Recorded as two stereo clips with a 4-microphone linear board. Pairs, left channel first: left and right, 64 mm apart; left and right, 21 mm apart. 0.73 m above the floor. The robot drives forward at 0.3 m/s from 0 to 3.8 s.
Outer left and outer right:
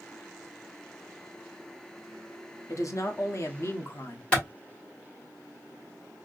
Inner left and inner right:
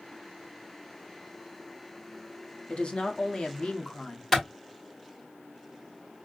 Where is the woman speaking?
60° left (ahead or behind), 0.9 m; by 4.2 s 45° left (ahead or behind), 1.1 m.